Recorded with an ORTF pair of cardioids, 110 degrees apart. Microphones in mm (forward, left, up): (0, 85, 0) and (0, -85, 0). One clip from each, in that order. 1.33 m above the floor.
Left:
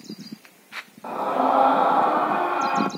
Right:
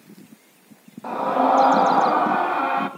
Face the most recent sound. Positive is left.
turn(degrees=-10)